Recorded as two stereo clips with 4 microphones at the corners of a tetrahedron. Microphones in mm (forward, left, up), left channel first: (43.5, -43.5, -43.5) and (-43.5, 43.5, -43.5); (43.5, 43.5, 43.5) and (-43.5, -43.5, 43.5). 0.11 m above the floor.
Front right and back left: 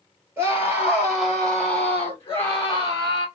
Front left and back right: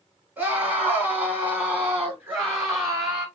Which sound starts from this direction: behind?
A scream, at 0.4 s.